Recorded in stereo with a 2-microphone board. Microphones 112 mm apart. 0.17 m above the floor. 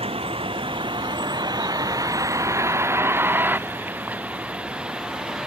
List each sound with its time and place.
0.0 s a vehicle: 65° right (ahead or behind); by 5.5 s 5° right (ahead or behind)